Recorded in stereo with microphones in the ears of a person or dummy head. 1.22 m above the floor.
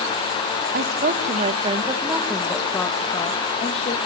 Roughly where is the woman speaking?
Right.